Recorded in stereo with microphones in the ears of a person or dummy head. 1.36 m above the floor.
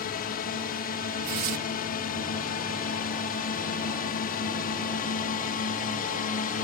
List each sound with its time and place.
0.0 s a drone: 45° left (ahead or behind); by 6.6 s 40° left (ahead or behind)
1.2 s tearing paper: 40° right (ahead or behind)